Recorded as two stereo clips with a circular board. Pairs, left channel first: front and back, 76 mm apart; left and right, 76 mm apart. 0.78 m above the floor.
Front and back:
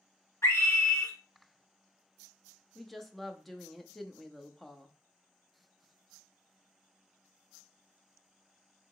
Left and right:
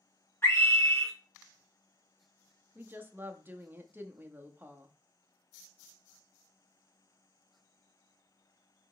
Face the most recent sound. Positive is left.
turn(degrees=-85)